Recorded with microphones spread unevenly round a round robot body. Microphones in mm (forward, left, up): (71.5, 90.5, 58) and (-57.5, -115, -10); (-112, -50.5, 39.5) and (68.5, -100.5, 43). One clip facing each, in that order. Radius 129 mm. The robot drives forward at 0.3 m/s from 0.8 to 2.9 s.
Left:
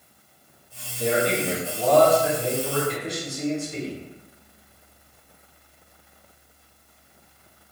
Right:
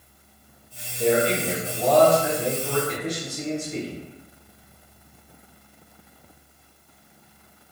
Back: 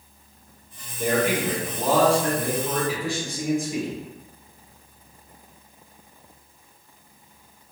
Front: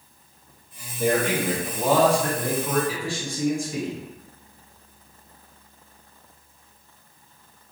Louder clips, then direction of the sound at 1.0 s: Right 2 dB, even; 105° right.